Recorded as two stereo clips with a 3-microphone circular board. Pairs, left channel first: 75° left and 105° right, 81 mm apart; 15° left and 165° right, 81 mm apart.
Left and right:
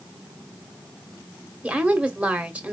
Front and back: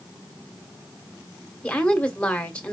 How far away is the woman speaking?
About 1.1 m.